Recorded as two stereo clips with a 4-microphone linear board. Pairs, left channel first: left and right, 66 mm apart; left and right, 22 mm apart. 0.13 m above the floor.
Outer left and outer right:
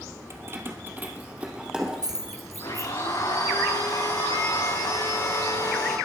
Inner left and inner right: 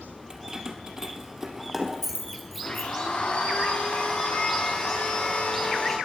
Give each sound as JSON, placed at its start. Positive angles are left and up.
{"t": 0.3, "sound": "keys jangling", "side_deg": -40, "distance_m": 2.5}
{"t": 2.6, "sound": "a blender", "side_deg": 80, "distance_m": 9.0}